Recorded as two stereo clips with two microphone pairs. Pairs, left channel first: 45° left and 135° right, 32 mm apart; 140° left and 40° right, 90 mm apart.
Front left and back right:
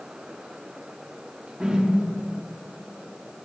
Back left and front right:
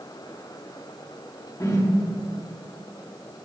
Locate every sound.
1.6 s a whoosh: 175° left, 1.0 m